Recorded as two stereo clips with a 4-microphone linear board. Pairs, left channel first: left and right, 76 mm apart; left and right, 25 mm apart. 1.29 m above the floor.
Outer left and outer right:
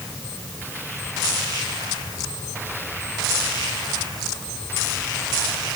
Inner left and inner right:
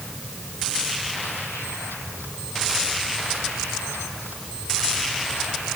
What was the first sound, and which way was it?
Only background noise.